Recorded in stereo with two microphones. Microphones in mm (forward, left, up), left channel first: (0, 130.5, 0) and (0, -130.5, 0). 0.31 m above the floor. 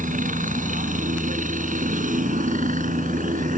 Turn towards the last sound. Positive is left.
turn(degrees=-30)  # may be behind; listen again after turning